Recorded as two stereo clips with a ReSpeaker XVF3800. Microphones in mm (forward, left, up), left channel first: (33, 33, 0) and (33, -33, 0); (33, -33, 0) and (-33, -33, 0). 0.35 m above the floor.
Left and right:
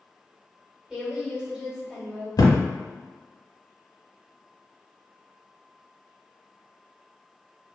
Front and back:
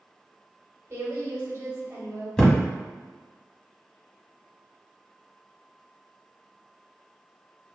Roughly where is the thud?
Left.